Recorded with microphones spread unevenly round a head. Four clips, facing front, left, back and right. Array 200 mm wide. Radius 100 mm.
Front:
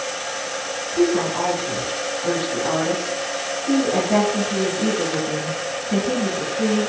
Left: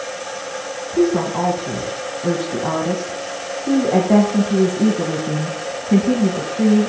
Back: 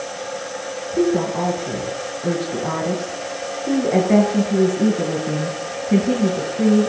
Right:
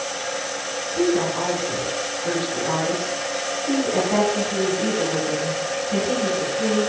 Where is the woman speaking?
110° left, 1.4 m.